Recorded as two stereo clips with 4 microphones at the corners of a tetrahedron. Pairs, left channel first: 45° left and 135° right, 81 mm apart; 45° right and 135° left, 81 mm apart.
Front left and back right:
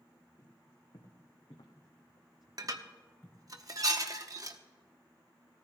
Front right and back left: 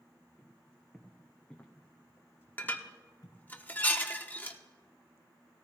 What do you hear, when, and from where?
0.4 s footsteps: 45° left, 2.5 m; by 3.4 s 25° right, 1.4 m
2.6 s dishes clattering: 110° right, 0.8 m